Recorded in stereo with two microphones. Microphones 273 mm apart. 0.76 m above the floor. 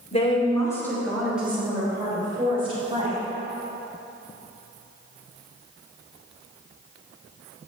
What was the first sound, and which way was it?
A woman speaking, 25° left (ahead or behind).